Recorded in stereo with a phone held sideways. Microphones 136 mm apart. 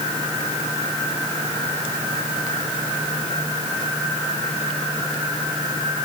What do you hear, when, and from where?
Only background noise.